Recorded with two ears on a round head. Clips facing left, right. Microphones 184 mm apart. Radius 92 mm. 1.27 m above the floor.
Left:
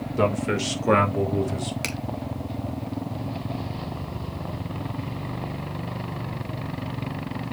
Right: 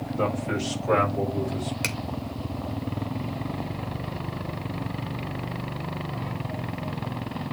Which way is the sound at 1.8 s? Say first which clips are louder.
Left 1 dB; centre (ahead or behind).